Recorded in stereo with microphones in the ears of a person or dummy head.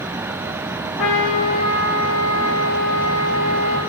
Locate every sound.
1.0 s a trumpet: 85° left, 4.5 m